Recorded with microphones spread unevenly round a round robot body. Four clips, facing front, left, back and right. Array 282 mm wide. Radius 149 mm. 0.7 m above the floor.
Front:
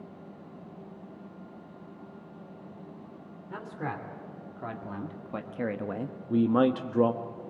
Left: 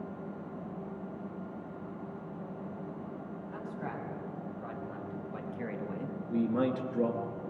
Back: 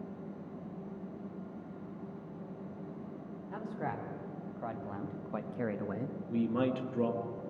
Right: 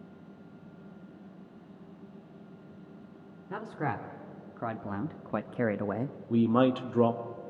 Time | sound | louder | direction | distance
3.5 | a man speaking | right 7 dB, front 2 dB | 70° right | 2.5 m
6.3 | a man speaking | right 5 dB, front 8 dB | 15° right | 1.0 m